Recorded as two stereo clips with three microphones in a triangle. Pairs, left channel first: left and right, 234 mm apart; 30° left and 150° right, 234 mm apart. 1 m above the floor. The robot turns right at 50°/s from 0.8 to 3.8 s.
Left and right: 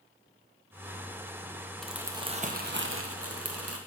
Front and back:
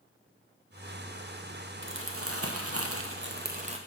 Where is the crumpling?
Straight behind, 0.6 m; by 3.8 s 85° right, 0.6 m.